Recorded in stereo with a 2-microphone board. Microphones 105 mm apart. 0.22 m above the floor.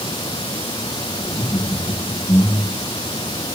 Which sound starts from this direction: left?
Laughter, at 1.2 s.